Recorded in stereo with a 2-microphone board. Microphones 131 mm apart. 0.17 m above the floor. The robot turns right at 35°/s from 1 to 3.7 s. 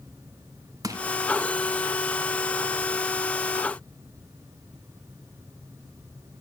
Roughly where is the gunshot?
No gunshot in this recording.